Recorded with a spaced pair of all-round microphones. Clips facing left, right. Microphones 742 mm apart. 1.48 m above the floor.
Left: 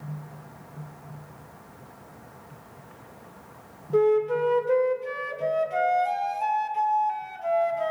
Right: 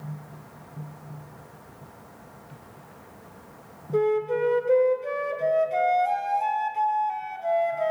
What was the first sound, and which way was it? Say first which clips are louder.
A flute: left 2 dB; 45° left (ahead or behind).